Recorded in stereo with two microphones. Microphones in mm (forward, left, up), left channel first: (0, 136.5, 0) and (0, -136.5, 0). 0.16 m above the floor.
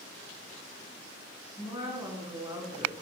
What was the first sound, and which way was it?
A woman speaking, 15° right (ahead or behind).